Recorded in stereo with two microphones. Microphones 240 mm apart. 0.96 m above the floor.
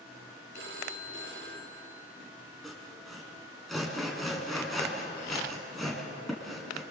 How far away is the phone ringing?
About 3 m.